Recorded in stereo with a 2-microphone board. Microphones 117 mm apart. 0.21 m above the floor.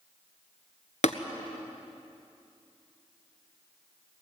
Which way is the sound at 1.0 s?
70° left (ahead or behind).